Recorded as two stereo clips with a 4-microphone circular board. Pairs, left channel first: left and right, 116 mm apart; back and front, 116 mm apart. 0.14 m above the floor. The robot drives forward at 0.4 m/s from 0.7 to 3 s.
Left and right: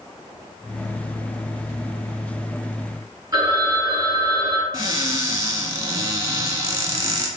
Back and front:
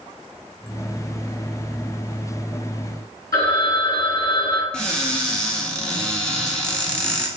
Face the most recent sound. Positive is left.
turn(degrees=-105)